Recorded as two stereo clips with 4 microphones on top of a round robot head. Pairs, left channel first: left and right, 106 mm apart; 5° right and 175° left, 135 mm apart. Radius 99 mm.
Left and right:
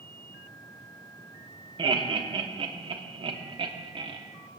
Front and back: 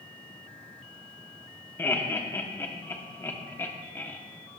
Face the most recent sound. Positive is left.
turn(degrees=-75)